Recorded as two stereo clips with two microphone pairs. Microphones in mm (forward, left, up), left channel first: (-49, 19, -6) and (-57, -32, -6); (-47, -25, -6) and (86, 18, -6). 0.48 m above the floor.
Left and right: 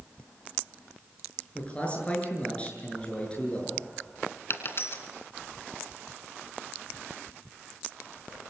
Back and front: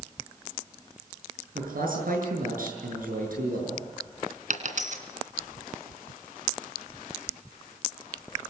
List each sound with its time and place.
1.6 s a man speaking: 15° left, 7 m
4.5 s a dropped coin: 45° left, 2.5 m